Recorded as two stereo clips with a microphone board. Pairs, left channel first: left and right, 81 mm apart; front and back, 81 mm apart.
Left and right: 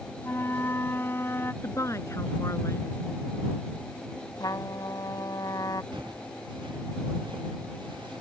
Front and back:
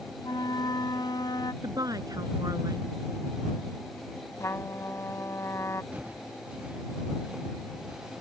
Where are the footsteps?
110° right; by 8.2 s 100° right.